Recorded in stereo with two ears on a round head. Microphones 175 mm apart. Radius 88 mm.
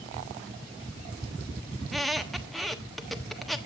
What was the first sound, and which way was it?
A squeak, centre (ahead or behind).